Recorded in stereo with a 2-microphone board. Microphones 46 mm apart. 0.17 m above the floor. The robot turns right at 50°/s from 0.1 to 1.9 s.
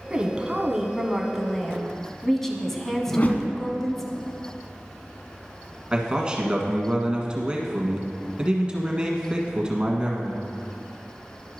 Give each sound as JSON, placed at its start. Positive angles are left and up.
{"t": 0.1, "sound": "a woman speaking", "side_deg": -25, "distance_m": 1.1}
{"t": 3.1, "sound": "a whoosh", "side_deg": 35, "distance_m": 0.9}
{"t": 5.9, "sound": "a man speaking", "side_deg": -20, "distance_m": 1.5}